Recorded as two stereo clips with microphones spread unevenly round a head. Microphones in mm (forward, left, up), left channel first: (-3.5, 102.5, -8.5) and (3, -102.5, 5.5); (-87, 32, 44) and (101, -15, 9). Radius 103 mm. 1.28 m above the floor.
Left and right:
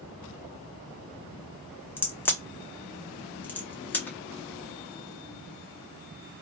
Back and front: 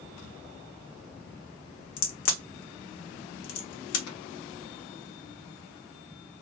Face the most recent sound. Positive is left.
turn(degrees=175)